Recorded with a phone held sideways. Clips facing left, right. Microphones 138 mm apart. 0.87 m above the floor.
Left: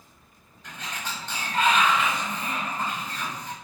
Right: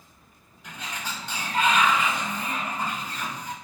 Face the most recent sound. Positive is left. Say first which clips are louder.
# even
turn(degrees=-10)  # may be behind; listen again after turning